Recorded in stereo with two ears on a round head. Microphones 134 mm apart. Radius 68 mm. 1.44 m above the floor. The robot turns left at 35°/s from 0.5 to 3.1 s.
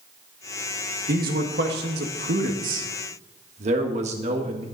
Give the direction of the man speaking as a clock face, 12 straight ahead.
2 o'clock.